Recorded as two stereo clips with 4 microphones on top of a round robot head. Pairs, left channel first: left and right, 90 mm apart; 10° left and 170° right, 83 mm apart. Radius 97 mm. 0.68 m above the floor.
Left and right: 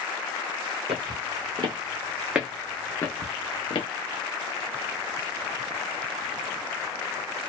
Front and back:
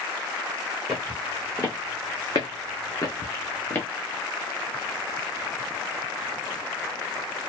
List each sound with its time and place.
0.9 s footsteps: 75° right, 1.1 m; by 3.9 s 65° left, 1.0 m